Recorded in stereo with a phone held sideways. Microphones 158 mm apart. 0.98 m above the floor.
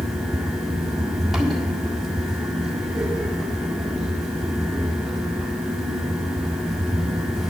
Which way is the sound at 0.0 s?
Centre (ahead or behind).